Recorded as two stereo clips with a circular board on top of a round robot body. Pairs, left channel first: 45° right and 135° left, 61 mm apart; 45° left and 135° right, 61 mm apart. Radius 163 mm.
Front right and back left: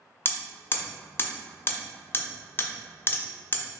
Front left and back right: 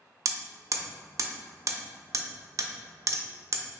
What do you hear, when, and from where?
0.2 s hammering: 100° right, 0.5 m